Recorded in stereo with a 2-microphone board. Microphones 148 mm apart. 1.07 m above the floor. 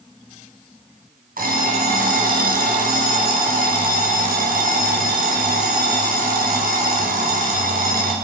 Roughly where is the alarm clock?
Right.